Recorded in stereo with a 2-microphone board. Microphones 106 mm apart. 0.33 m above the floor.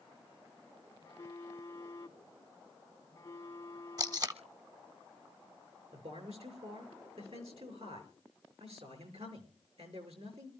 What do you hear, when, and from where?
1.0 s a phone buzzing: 25° left (ahead or behind), 3 m
4.0 s tape being pulled: 40° right (ahead or behind), 0.9 m
5.9 s a man speaking: 80° right, 5.5 m